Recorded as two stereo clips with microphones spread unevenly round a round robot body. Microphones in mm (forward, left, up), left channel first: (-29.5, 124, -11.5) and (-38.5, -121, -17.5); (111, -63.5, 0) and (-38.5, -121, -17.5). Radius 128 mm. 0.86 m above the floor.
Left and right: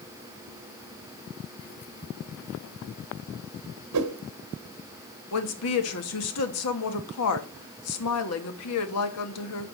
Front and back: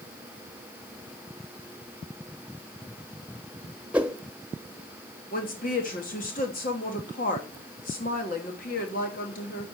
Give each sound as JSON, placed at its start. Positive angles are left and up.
{"t": 3.9, "sound": "a whoosh", "azimuth_deg": -75, "distance_m": 1.3}
{"t": 5.3, "sound": "a woman speaking", "azimuth_deg": 70, "distance_m": 1.4}